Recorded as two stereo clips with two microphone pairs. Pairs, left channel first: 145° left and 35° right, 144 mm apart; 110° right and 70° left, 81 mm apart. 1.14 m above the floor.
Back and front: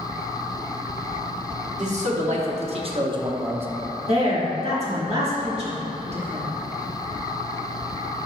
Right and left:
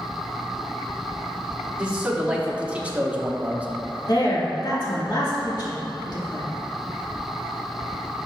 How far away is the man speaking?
About 1.3 m.